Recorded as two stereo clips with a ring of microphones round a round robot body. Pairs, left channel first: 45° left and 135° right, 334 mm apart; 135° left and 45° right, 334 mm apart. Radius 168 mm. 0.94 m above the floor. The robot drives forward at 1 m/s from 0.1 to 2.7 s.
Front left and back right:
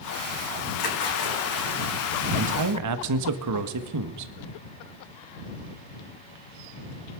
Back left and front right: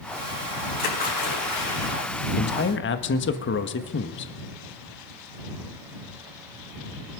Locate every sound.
0.8 s a splash: 70° left, 8 m; by 1.8 s 75° left, 7.5 m
2.4 s a man speaking: 165° right, 1.0 m; by 4.3 s 170° right, 1.3 m